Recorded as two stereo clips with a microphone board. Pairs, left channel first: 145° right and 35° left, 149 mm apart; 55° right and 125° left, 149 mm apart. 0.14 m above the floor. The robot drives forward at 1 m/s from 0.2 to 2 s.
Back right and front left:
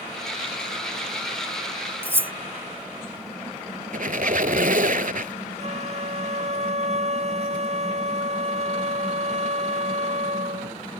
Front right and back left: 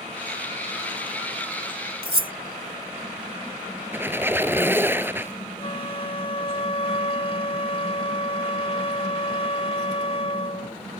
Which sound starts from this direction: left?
Cutlery clinking, at 2.0 s.